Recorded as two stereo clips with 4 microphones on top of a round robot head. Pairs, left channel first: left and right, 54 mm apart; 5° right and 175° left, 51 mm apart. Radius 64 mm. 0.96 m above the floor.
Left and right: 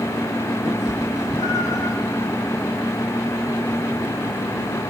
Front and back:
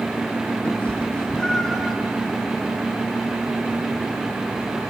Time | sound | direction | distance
0.7 | a cat meowing | 60° left | 1.8 m